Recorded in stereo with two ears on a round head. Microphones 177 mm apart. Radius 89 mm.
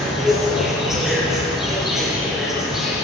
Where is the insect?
Centre (ahead or behind), 4 m.